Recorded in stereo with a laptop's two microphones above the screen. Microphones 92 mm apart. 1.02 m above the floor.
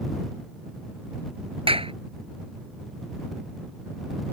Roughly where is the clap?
Right.